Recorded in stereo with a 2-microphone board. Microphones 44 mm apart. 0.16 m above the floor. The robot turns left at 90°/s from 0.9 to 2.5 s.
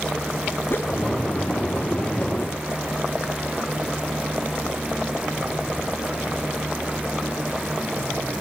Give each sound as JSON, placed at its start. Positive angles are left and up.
{"t": 0.7, "sound": "a whoosh", "side_deg": 50, "distance_m": 0.5}